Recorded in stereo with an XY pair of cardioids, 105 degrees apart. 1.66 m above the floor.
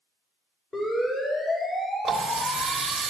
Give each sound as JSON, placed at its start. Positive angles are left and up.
{"t": 0.7, "sound": "a siren", "azimuth_deg": 20, "distance_m": 9.5}
{"t": 2.0, "sound": "a running tap", "azimuth_deg": -45, "distance_m": 3.0}